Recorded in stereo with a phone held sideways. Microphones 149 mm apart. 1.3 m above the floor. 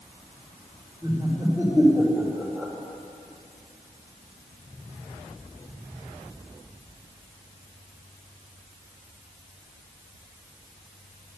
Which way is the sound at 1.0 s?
15° left (ahead or behind).